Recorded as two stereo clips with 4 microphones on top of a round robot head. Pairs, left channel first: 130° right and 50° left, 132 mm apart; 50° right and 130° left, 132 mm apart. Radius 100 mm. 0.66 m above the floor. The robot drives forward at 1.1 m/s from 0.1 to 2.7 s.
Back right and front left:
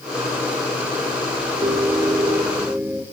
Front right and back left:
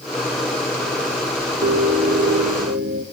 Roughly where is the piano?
Left.